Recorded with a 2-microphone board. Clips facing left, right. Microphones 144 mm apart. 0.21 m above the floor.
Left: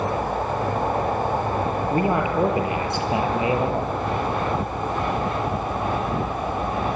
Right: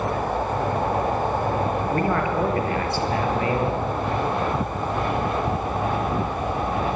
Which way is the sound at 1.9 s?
20° left (ahead or behind).